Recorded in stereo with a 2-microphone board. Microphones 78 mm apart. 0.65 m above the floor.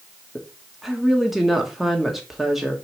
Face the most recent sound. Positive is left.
turn(degrees=-5)  # may be behind; listen again after turning